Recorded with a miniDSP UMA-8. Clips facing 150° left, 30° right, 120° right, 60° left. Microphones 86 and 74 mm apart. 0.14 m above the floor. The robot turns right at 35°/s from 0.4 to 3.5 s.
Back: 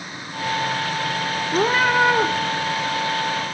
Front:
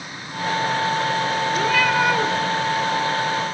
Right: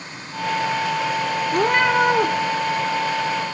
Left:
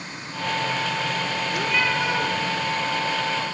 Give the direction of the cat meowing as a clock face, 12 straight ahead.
6 o'clock.